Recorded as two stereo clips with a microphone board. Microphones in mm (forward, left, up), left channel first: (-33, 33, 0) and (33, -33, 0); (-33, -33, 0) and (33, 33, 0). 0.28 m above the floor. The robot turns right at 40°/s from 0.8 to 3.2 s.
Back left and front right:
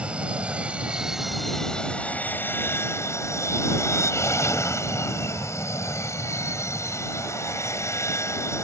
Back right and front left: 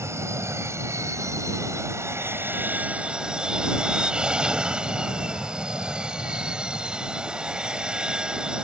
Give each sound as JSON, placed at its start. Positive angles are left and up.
{"t": 0.0, "sound": "an aircraft", "azimuth_deg": 20}